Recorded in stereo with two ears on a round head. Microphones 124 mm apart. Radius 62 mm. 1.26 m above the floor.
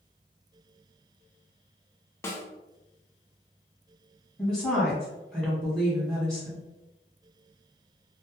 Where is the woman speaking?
Centre (ahead or behind), 1.2 m.